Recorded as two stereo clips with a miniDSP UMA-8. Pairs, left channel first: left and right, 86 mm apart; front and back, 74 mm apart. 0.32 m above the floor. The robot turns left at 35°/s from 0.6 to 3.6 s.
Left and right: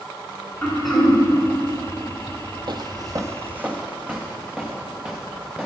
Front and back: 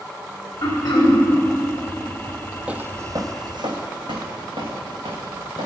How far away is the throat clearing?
About 2 m.